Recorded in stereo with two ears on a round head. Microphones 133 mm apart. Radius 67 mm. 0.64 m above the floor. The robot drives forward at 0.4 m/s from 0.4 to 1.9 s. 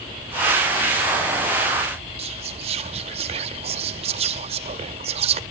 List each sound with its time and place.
2.2 s whispering: 40° right (ahead or behind), 0.6 m